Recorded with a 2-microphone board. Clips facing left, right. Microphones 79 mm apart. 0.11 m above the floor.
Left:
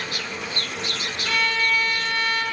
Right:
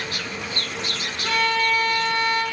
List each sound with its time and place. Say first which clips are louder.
1.2 s a violin: right 3 dB; 40° right (ahead or behind), 1.3 m